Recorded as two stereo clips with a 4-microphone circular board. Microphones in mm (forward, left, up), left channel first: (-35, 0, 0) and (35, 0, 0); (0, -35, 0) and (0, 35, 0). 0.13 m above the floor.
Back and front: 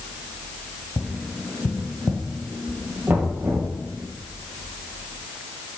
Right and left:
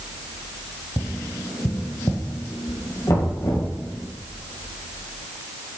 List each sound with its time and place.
1.0 s tapping: 115° right, 2 m
3.1 s knocking: 55° right, 3.5 m